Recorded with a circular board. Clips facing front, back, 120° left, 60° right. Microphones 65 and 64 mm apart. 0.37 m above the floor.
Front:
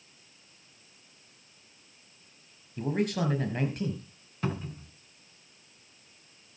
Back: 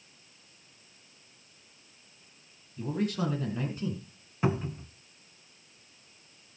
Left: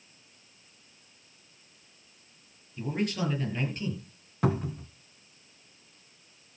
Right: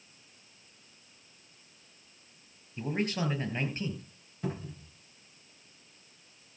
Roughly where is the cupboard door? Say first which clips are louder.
Back 4 dB, left 9 dB; left.